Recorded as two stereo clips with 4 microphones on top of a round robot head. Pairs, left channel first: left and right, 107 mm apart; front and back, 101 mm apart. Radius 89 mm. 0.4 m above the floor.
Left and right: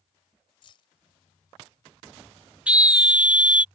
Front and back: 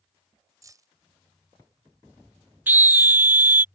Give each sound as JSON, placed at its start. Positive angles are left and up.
{"t": 0.6, "sound": "keys jangling", "azimuth_deg": 130}
{"t": 2.7, "sound": "a scream", "azimuth_deg": -150}